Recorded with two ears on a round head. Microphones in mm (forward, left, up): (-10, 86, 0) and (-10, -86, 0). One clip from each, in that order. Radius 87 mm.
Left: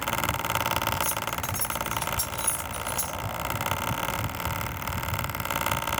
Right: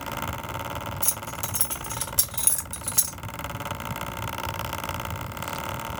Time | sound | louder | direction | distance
1.0 | keys jangling | left 3 dB | 45° right (ahead or behind) | 1.5 m